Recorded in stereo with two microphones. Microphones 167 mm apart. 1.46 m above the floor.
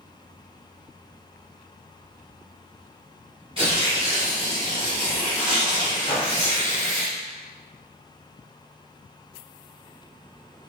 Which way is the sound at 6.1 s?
35° left (ahead or behind).